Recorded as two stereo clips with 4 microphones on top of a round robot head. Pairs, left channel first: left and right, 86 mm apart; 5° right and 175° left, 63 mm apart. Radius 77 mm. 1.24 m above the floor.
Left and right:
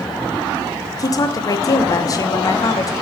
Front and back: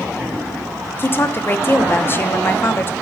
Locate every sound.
1.0 s a woman speaking: 45° left, 0.7 m